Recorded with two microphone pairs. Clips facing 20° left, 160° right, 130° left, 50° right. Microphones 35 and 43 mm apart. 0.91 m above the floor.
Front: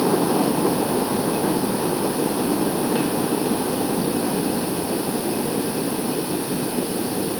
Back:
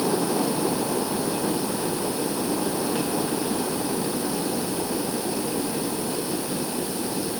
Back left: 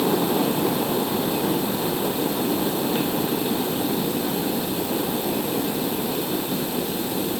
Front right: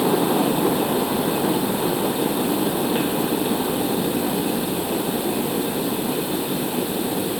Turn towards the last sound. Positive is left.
No sound to turn to.